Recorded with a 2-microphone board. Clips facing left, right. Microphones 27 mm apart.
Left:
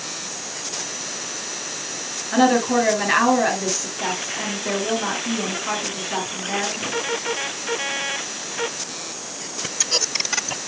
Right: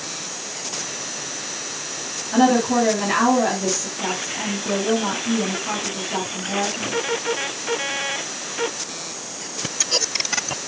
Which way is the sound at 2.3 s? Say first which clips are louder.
Even; 35° left (ahead or behind).